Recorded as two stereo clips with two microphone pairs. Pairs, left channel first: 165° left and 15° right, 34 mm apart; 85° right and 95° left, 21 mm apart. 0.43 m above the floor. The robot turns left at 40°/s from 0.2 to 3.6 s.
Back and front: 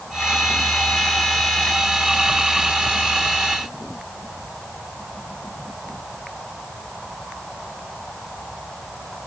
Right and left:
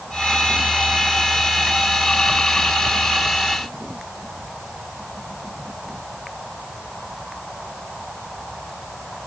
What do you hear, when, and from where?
Only background noise.